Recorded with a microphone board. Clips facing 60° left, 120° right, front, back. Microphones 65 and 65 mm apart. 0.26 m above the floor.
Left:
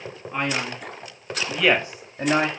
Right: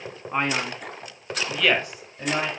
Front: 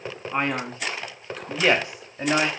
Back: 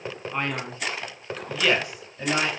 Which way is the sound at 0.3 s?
65° right.